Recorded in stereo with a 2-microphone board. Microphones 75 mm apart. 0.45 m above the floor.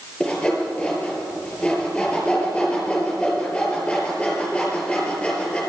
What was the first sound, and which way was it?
Sawing, 15° left (ahead or behind).